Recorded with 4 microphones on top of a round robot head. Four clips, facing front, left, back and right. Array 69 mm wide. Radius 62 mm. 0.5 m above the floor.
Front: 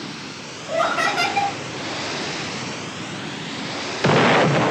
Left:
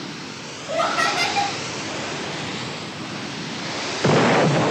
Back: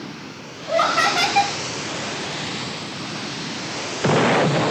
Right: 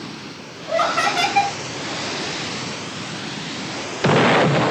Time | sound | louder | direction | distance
0.7 | laughter | right 2 dB, back 2 dB | 140° right | 1.4 m